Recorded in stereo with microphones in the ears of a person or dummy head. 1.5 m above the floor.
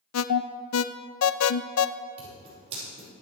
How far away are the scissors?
About 5.5 m.